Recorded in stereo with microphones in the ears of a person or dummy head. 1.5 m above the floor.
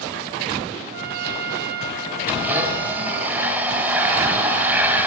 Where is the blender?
10° right (ahead or behind), 4 m.